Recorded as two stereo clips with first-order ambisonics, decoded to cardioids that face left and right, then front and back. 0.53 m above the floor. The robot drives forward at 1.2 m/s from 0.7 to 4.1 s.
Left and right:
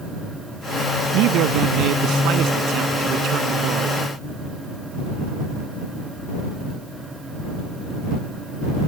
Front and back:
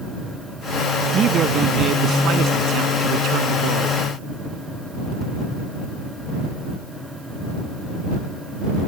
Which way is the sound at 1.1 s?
120° right.